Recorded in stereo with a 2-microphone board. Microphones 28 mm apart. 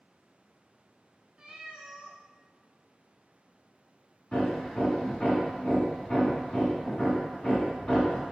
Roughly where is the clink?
No clink in this recording.